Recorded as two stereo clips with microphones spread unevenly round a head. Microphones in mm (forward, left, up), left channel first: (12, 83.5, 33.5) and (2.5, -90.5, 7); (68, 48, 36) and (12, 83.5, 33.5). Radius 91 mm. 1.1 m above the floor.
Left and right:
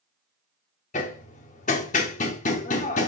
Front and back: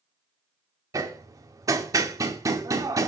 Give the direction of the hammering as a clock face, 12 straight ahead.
8 o'clock.